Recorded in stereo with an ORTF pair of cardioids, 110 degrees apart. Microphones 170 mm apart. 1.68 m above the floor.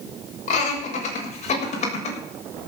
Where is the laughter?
45° left, 6 m.